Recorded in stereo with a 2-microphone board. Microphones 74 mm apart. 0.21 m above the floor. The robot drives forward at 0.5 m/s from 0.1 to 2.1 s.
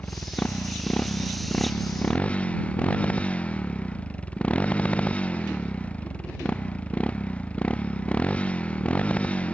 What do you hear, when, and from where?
0.0 s a motorcycle: 20° left (ahead or behind); by 9.6 s 15° left (ahead or behind)